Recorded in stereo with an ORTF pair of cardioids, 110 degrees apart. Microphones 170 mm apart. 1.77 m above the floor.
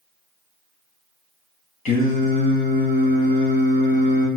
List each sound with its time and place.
1.9 s singing: 50° left, 2.5 m